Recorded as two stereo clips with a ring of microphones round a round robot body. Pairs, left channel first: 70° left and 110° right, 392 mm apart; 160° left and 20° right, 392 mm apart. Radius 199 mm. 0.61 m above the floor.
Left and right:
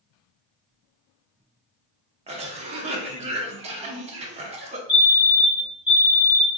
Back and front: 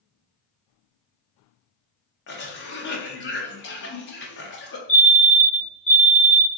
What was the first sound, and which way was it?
A cough, 170° right.